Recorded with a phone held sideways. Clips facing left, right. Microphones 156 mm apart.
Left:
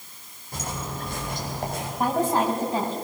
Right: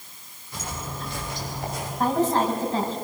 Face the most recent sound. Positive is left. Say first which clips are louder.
# right 1 dB
turn(degrees=10)  # may be behind; listen again after turning